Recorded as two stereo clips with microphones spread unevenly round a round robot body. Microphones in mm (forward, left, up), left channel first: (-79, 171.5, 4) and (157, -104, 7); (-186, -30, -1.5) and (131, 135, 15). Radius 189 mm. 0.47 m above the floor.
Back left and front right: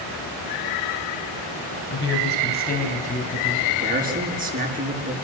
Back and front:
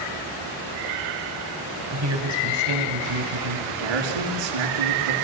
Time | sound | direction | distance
1.9 | a woman speaking | 75° left | 3.5 m
3.7 | a man speaking | 20° left | 6 m